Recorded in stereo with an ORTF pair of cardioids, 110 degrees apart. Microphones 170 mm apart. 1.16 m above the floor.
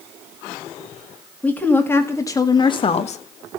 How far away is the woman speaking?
About 1.5 m.